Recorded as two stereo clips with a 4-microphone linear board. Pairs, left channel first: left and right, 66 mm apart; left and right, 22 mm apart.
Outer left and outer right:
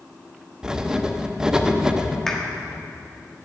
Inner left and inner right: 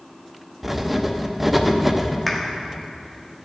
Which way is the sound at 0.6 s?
10° right (ahead or behind).